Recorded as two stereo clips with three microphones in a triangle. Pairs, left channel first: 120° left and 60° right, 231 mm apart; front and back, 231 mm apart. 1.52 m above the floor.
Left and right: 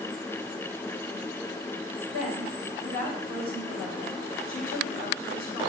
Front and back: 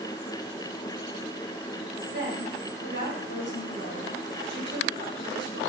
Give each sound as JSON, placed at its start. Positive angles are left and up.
{"t": 2.1, "sound": "a woman speaking", "azimuth_deg": 140, "distance_m": 4.5}